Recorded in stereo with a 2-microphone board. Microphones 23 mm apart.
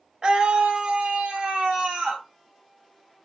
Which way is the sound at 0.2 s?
35° right (ahead or behind).